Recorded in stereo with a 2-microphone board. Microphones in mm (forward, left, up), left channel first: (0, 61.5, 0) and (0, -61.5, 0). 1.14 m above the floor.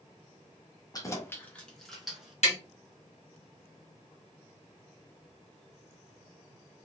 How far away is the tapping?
About 1.6 m.